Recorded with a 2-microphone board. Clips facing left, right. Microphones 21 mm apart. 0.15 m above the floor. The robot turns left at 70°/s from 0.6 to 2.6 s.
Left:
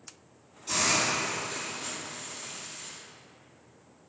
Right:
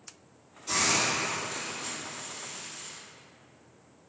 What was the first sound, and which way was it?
A hiss, centre (ahead or behind).